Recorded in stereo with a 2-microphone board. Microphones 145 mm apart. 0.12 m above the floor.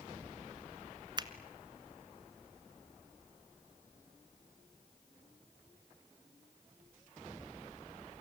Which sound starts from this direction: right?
A finger snap, at 1.2 s.